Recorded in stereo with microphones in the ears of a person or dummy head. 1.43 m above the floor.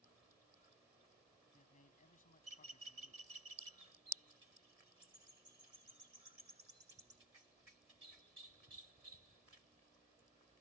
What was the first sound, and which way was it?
A man speaking, 40° left (ahead or behind).